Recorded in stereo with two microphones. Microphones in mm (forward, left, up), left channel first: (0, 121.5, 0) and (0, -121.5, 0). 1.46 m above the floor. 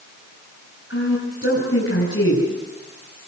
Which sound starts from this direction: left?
A woman speaking, at 0.9 s.